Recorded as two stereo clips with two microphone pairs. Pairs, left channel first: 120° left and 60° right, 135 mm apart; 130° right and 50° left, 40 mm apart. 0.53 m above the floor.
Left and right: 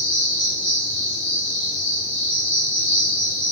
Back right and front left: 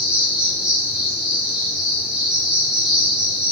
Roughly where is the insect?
Behind left.